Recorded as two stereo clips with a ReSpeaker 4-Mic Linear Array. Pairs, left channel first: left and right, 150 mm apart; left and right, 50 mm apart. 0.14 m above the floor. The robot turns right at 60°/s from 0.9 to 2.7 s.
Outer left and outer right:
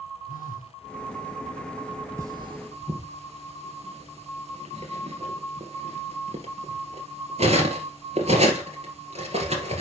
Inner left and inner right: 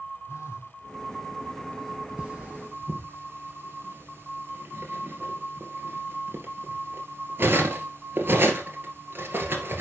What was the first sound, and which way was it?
A phone buzzing, 70° left (ahead or behind).